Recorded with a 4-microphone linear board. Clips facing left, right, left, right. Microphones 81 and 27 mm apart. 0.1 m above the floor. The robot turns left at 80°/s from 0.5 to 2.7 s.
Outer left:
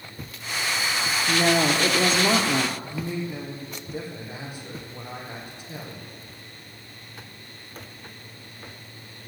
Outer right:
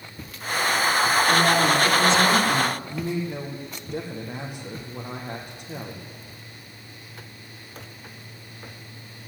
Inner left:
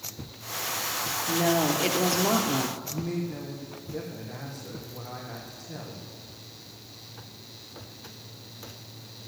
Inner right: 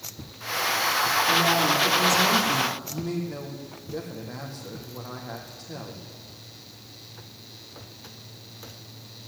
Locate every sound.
1.3 s a woman speaking: 140° left, 2 m; by 2.8 s 25° left, 2 m
2.9 s a man speaking: 55° right (ahead or behind), 4 m